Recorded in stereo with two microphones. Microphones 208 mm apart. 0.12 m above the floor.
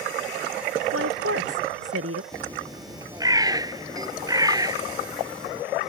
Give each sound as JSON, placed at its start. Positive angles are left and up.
{"t": 0.9, "sound": "a woman speaking", "side_deg": -85}
{"t": 2.3, "sound": "a bird", "side_deg": -15}